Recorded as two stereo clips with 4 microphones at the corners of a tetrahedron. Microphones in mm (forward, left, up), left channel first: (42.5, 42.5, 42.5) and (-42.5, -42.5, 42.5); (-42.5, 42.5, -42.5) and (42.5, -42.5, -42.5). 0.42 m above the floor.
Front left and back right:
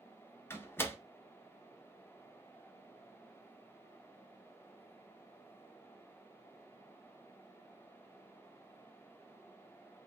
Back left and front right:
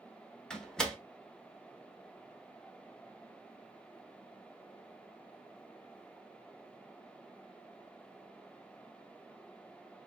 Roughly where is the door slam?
Ahead left.